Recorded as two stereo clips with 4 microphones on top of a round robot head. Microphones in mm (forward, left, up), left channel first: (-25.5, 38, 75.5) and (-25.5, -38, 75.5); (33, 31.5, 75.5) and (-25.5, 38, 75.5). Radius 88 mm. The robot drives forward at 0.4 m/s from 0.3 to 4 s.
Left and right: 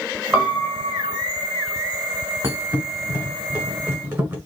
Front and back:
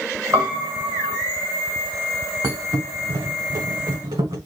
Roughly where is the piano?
Behind right.